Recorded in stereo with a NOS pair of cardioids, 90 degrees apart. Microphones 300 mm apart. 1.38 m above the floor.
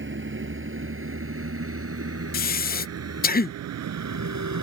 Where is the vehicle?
40° right; by 4.6 s 65° right.